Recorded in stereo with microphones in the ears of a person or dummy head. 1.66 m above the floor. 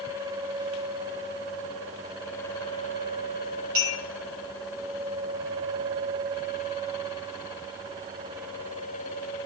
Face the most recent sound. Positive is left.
turn(degrees=-55)  # may be behind; listen again after turning